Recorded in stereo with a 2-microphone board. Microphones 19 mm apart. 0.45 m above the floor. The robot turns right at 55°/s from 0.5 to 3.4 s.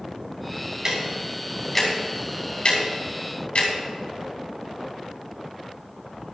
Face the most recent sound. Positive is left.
turn(degrees=75)  # may be behind; listen again after turning